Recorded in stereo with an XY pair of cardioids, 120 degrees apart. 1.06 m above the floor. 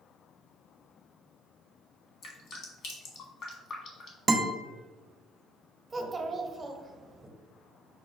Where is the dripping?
55° left, 1.5 m.